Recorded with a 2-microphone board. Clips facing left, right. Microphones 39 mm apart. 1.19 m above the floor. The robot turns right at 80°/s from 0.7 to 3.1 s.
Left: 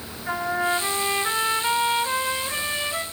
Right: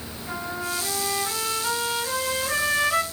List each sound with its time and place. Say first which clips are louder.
0.3 s a trumpet: left 7 dB; 70° left, 2.5 m; by 3.0 s 105° right, 2.5 m